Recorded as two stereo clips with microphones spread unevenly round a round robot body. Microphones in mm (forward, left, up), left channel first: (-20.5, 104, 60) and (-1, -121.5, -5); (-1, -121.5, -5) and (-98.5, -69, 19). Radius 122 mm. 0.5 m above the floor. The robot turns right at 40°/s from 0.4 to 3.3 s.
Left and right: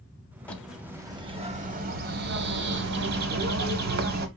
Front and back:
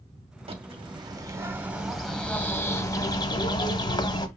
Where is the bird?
175° right, 1.2 m; by 4.3 s 60° right, 1.2 m.